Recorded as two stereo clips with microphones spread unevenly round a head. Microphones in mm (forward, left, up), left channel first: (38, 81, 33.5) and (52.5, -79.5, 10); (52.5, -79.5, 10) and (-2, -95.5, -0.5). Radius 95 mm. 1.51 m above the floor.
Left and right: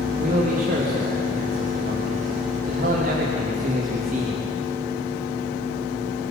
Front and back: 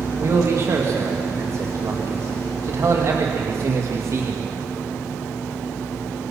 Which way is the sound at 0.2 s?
130° right.